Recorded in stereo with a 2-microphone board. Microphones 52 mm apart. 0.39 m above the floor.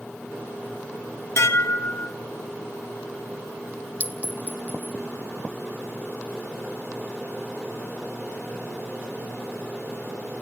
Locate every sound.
1.4 s dishes clattering: 60° left (ahead or behind), 1.3 m
4.0 s a clink: 30° right (ahead or behind), 0.8 m